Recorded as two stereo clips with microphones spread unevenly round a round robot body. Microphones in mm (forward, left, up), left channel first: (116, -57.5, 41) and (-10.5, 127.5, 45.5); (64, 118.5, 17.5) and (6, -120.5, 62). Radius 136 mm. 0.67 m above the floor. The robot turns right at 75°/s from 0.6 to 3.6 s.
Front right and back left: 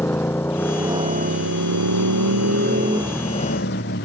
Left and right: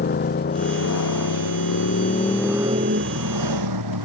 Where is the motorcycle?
25° left; by 4.1 s 110° right.